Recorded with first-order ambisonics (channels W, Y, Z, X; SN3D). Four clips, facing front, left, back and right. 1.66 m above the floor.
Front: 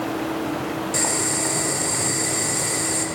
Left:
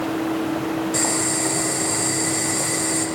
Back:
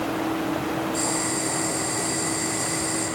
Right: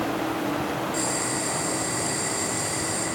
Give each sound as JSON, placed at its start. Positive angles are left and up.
{"t": 0.9, "sound": "boiling", "azimuth_deg": 30, "distance_m": 5.5}